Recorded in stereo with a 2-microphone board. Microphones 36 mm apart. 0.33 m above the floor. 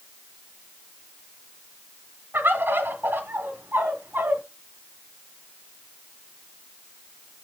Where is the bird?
60° right (ahead or behind), 1.3 m.